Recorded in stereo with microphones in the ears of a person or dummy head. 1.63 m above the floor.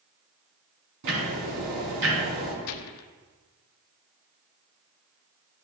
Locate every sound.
1.0 s ticking: 70° right (ahead or behind), 4.5 m
2.6 s a gunshot: 75° left (ahead or behind), 0.7 m